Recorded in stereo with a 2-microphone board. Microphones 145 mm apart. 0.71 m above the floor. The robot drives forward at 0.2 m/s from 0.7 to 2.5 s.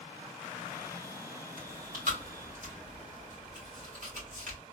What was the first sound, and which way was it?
Chewing, 65° right (ahead or behind).